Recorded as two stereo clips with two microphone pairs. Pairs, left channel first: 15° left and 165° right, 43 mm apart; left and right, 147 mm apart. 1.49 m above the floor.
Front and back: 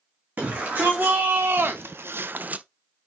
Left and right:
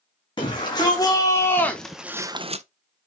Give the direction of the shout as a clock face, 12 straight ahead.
7 o'clock.